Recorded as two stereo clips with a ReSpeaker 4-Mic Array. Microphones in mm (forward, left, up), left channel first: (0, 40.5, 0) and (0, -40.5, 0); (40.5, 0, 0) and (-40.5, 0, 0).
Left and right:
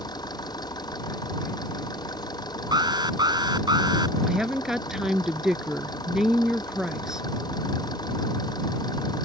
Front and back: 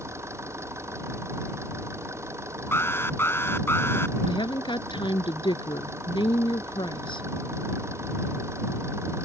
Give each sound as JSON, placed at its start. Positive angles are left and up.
{"t": 0.0, "sound": "an engine running", "azimuth_deg": 125}
{"t": 2.7, "sound": "an alarm", "azimuth_deg": -60}
{"t": 4.3, "sound": "a woman speaking", "azimuth_deg": -5}